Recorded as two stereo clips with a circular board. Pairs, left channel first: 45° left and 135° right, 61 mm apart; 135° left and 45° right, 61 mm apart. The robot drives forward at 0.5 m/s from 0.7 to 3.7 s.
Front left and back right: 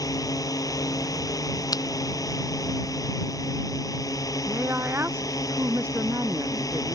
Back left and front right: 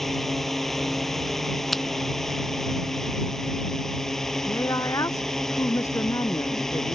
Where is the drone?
50° left.